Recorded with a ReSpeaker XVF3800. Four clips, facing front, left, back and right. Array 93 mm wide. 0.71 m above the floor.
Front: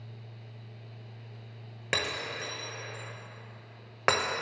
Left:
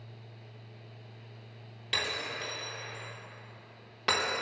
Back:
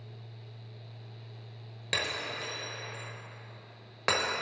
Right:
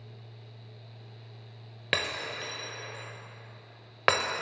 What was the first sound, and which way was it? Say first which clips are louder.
Breaking glass: right 3 dB, front 1 dB; 65° right.